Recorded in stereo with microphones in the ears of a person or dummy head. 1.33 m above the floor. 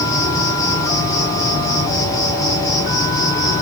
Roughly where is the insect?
Left.